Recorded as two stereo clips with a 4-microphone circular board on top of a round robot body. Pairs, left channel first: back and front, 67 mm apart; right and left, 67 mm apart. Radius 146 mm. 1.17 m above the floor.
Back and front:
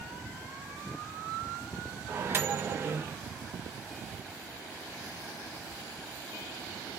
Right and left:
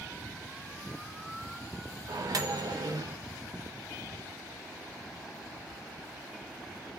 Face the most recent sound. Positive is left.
turn(degrees=60)